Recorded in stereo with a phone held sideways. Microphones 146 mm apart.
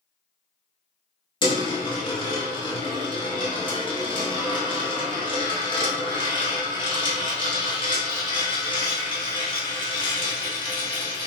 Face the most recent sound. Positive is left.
turn(degrees=35)  # may be behind; listen again after turning